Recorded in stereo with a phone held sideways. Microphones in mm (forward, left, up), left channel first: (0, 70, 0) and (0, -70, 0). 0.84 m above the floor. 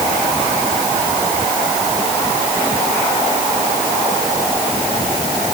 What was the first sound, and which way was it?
Only background noise.